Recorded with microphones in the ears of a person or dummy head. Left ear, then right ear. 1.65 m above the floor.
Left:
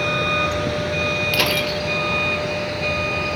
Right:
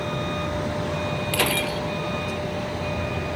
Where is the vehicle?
50° left (ahead or behind); by 3.4 s 45° left (ahead or behind).